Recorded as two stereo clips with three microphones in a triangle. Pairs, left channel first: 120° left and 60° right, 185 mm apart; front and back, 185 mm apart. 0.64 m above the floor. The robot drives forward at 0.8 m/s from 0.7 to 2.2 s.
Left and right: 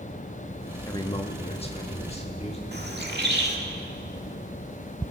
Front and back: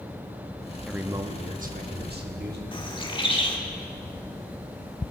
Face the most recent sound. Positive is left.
turn(degrees=-60)